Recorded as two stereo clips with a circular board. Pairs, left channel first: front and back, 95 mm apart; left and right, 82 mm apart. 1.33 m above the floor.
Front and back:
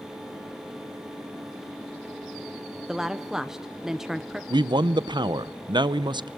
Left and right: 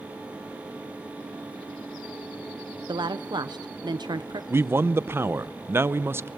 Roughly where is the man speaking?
Behind right.